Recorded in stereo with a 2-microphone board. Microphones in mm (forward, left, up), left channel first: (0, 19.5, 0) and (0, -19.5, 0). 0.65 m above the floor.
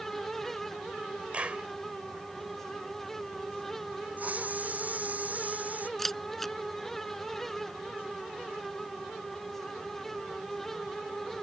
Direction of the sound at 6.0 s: 5° left (ahead or behind).